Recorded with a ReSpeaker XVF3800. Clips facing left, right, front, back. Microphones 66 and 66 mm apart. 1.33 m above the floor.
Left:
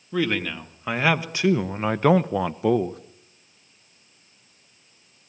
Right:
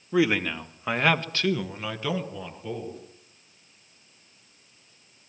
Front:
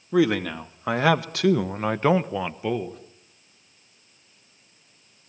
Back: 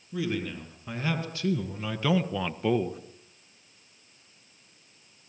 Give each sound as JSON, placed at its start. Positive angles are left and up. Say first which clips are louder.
{"t": 0.1, "sound": "a man speaking", "louder": "right 2 dB, front 10 dB", "azimuth_deg": -10, "distance_m": 2.5}